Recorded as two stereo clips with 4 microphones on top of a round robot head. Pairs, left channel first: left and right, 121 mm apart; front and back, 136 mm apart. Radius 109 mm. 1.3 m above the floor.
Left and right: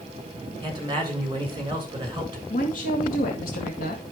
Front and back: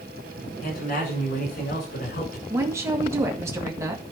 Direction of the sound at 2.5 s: 110° left.